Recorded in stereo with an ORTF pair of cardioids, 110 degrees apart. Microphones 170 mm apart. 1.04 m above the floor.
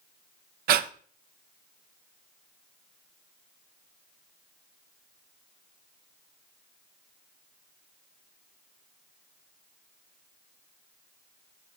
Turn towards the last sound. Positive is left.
turn(degrees=-65)